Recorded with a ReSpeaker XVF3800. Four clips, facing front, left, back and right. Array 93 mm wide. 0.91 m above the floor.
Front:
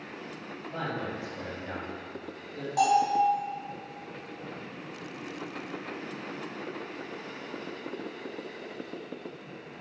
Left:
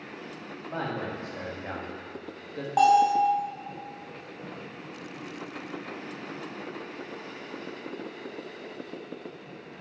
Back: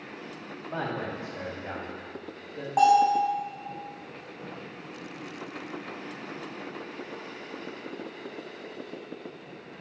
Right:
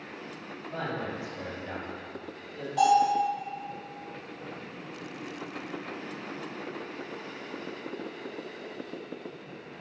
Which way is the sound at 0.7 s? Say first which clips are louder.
Left 1 dB, back 2 dB; 145° left.